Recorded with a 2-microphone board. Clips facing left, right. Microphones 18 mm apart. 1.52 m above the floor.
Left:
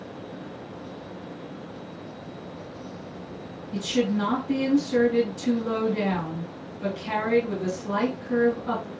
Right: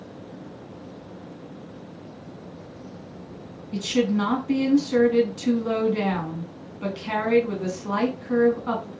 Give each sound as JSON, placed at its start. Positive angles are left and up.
{"t": 3.7, "sound": "a woman speaking", "side_deg": -40, "distance_m": 1.4}